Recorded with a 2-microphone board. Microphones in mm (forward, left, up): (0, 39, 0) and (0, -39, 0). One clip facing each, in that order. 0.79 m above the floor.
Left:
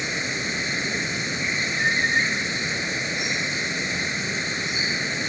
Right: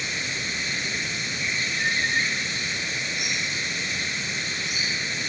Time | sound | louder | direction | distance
0.0 | running water | left 3 dB | 25° left (ahead or behind) | ?